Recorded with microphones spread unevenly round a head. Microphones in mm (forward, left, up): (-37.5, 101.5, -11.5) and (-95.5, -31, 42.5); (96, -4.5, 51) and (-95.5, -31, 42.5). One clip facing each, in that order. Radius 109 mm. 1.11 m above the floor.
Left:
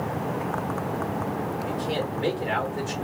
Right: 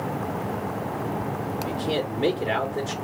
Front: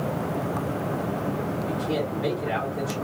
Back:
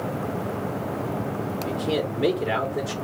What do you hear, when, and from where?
1.7 s a man speaking: 175° right, 1.8 m